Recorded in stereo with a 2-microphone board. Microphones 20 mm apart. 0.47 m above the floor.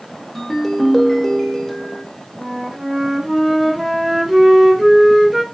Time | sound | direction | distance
0.3 | a ringtone | 20° left (ahead or behind) | 0.7 m
2.4 | a flute | 15° right (ahead or behind) | 0.9 m